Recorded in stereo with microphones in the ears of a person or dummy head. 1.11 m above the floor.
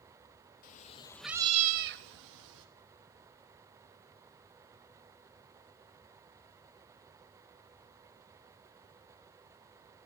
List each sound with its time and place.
0.6 s a cat meowing: 45° left (ahead or behind), 0.8 m; by 2.7 s 80° right, 1.4 m